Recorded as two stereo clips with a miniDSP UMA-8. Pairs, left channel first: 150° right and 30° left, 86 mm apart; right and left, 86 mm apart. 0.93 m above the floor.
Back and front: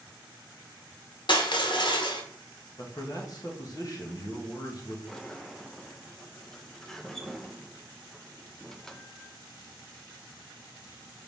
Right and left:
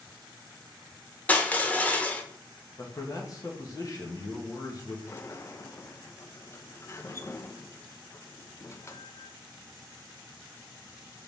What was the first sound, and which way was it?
Crushing, 160° right.